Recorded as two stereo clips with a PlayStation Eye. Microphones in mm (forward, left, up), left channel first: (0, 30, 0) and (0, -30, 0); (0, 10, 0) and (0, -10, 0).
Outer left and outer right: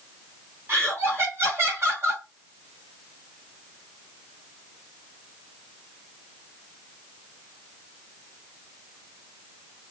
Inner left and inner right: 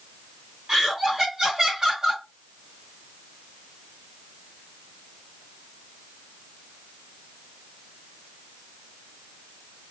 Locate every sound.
0.7 s laughter: 45° right (ahead or behind), 1.3 m